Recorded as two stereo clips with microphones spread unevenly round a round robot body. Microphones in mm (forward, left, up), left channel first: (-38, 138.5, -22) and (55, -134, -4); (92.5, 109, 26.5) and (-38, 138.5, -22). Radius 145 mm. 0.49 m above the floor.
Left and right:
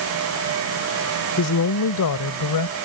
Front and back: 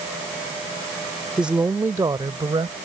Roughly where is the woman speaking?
Left.